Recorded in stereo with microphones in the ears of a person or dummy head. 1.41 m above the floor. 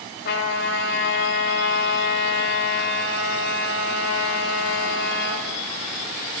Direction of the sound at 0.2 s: 65° left (ahead or behind).